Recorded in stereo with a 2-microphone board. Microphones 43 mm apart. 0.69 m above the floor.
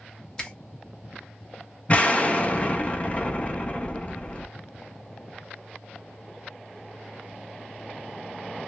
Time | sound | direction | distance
0.4 | a finger snap | 15° left (ahead or behind) | 0.8 m
1.9 | an explosion | 35° left (ahead or behind) | 0.6 m